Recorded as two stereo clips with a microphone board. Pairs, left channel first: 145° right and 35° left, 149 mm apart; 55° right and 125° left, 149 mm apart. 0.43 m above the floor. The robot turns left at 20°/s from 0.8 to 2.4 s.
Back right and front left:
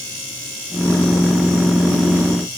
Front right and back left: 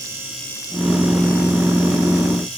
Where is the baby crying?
I don't hear a baby crying.